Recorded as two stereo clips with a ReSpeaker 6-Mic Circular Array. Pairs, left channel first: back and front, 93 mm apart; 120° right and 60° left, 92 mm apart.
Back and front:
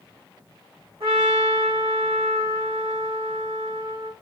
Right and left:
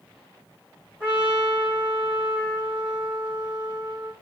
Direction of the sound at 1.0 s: 15° right.